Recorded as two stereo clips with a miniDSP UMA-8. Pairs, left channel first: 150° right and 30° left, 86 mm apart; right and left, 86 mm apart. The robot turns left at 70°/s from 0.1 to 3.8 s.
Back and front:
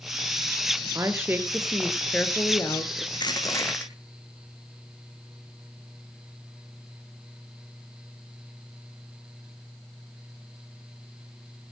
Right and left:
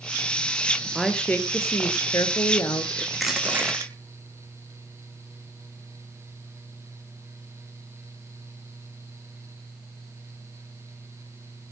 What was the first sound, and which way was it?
A woman speaking, straight ahead.